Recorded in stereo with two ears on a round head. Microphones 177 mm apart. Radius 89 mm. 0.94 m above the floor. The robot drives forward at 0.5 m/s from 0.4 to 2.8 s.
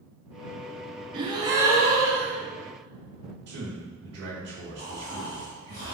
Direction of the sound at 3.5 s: 55° right (ahead or behind).